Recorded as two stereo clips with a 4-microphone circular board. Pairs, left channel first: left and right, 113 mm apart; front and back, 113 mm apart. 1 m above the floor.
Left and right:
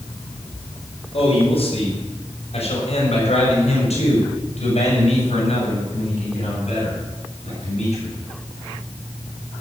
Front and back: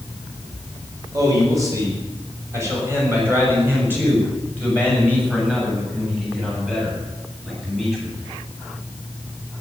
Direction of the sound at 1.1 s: 120° left.